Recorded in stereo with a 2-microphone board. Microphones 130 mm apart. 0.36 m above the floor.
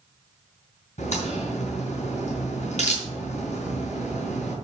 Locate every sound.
1.0 s a crack: 60° left (ahead or behind), 3.5 m